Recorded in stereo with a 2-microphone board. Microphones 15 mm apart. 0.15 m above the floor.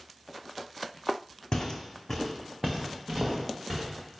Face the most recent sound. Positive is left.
turn(degrees=-35)  # may be behind; listen again after turning